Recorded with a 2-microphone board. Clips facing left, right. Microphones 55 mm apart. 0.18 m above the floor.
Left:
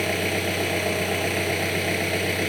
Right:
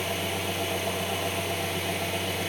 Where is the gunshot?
I don't hear a gunshot.